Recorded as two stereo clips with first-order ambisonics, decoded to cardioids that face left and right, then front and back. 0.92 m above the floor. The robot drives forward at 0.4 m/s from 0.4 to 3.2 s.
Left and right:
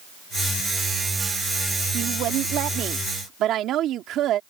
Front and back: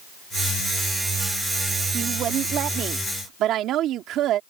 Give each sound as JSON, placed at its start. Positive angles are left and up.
{"t": 1.9, "sound": "a woman speaking", "azimuth_deg": -125}